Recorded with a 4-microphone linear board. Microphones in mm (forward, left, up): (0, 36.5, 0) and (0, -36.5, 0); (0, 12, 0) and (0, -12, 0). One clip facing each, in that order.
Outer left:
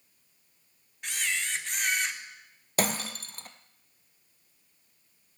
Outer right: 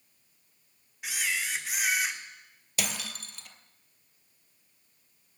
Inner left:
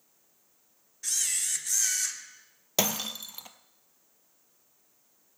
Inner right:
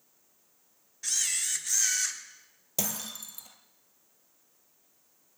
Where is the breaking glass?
40° left (ahead or behind), 0.9 m.